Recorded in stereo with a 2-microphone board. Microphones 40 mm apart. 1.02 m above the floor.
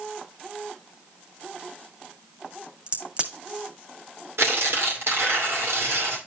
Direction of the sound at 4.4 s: 90° right.